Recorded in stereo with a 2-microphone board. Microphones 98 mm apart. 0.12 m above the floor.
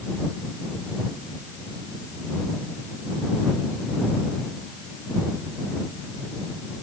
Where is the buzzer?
No buzzer in this recording.